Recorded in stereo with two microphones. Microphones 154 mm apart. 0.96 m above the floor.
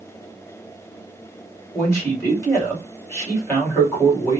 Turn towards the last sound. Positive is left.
turn(degrees=20)  # may be behind; listen again after turning